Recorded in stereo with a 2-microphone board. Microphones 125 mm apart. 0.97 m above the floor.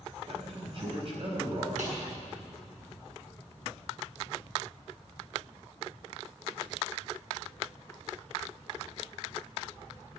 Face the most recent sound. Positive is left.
turn(degrees=-90)